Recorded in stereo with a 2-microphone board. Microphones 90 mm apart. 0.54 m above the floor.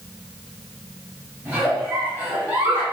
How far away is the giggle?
About 1.5 m.